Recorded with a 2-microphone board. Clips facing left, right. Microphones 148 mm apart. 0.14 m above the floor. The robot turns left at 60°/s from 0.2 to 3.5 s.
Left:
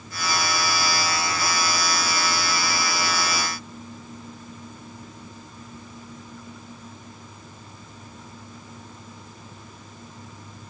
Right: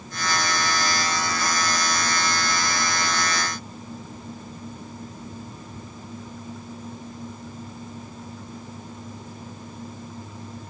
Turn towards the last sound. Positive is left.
No sound to turn to.